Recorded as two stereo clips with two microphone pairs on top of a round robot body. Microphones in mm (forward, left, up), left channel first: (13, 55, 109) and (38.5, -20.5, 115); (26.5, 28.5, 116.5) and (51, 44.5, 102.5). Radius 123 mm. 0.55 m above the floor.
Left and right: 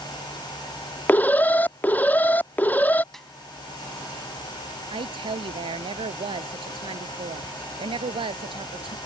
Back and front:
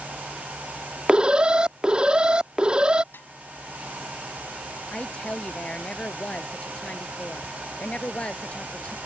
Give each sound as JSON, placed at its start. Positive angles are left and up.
{"t": 1.1, "sound": "an alarm", "azimuth_deg": 45}
{"t": 3.1, "sound": "a snare drum", "azimuth_deg": -165}
{"t": 4.9, "sound": "a woman speaking", "azimuth_deg": -90}